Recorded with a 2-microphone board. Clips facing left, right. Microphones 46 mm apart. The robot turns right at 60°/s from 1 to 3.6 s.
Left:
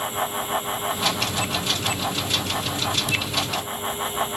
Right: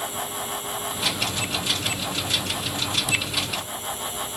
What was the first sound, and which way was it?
Only background noise.